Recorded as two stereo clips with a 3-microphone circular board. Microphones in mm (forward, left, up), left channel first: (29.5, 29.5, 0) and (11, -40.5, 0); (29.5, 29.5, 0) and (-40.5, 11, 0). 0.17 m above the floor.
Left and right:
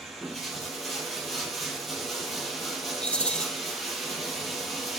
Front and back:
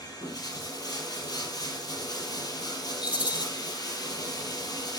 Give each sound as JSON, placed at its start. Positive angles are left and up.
{"t": 0.0, "sound": "running water", "azimuth_deg": -15, "distance_m": 4.5}
{"t": 3.0, "sound": "a rattle", "azimuth_deg": -5, "distance_m": 1.3}